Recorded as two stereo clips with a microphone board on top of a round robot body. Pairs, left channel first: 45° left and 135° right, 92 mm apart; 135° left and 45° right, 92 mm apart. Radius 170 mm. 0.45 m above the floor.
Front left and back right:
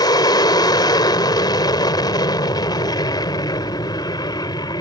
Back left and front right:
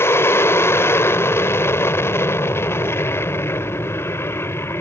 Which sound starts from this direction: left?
An aircraft, at 0.0 s.